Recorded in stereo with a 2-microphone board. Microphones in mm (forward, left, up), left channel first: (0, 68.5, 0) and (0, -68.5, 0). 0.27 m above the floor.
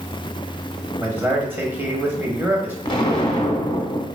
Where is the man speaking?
15° right (ahead or behind), 1.0 m.